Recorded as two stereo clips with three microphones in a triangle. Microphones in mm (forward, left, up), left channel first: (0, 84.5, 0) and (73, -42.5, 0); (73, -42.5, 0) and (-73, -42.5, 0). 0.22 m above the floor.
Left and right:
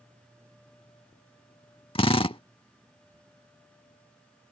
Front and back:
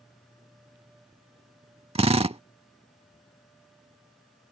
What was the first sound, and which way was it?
A drill, 155° left.